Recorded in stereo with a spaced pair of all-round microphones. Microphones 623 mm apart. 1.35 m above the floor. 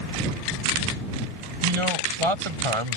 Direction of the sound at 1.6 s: 50° right (ahead or behind).